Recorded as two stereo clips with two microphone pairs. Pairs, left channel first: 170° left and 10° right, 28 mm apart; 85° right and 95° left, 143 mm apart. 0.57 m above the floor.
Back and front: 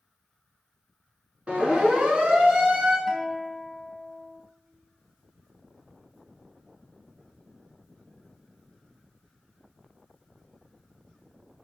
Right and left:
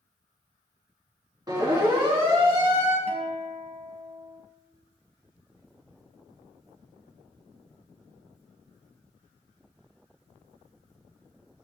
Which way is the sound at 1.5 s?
35° left.